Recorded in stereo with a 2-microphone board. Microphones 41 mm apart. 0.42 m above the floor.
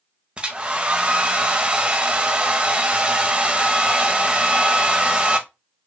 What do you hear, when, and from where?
0.4 s a hair dryer: 25° right (ahead or behind), 0.5 m